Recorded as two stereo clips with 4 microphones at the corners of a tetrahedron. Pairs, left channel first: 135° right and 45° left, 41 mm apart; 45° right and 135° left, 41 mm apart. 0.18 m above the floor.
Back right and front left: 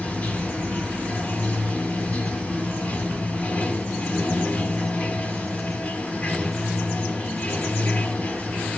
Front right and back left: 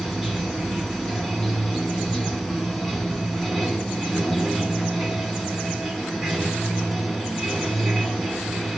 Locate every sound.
0.0 s running water: 140° right, 1.0 m